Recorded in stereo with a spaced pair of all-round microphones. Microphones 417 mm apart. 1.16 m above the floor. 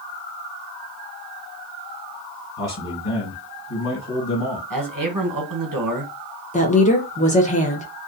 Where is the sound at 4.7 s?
50° right (ahead or behind), 0.9 m.